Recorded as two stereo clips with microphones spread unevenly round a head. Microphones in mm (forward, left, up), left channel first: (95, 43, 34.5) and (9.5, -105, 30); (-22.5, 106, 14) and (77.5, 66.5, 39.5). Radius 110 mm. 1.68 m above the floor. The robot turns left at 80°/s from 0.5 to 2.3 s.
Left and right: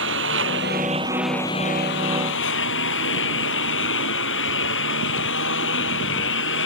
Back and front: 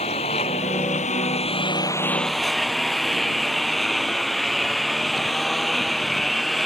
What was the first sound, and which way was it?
A lawn mower, 150° right.